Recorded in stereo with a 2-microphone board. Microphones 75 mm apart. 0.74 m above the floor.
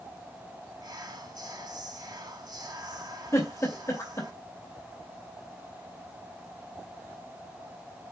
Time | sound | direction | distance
0.8 | whispering | 60° right (ahead or behind) | 1.4 m
3.3 | a giggle | 40° left (ahead or behind) | 2.5 m